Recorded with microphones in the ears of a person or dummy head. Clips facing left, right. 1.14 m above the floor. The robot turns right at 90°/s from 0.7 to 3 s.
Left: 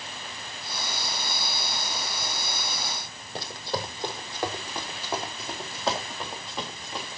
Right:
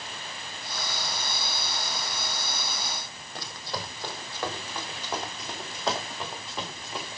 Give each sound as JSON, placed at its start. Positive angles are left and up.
{"t": 3.4, "sound": "running footsteps", "side_deg": 30, "distance_m": 3.0}